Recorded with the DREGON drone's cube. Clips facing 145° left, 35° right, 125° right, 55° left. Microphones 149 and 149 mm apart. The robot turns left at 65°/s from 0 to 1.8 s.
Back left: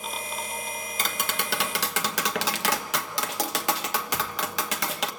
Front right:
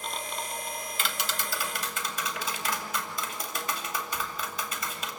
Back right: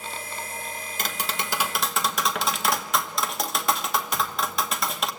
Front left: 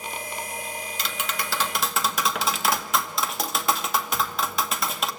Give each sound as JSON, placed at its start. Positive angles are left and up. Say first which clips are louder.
{"t": 1.0, "sound": "tapping", "louder": "back left 4 dB, back right 2 dB", "azimuth_deg": -165, "distance_m": 1.0}